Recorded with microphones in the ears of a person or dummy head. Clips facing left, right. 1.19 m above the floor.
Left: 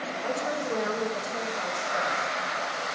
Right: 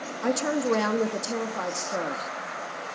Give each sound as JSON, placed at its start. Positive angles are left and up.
{"t": 0.2, "sound": "a woman speaking", "side_deg": -75, "distance_m": 2.5}